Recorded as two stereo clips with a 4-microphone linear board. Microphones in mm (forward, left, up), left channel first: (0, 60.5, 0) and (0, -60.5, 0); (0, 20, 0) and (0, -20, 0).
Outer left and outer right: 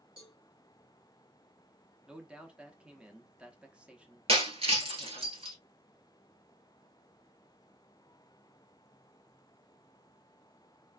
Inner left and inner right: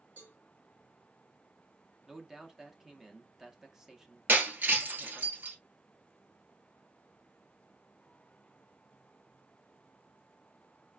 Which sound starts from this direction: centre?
A man speaking, at 2.1 s.